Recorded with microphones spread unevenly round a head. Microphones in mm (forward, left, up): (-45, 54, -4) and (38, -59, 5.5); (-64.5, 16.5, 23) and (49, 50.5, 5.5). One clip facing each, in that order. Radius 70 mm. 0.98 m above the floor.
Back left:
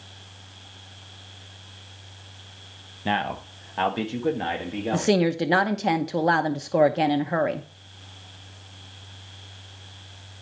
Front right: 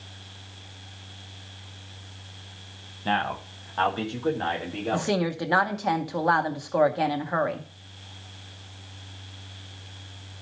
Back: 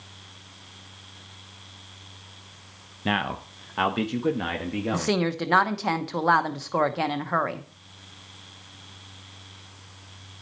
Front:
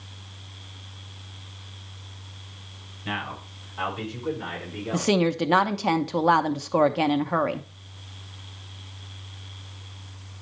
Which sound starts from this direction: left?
A woman speaking, at 4.9 s.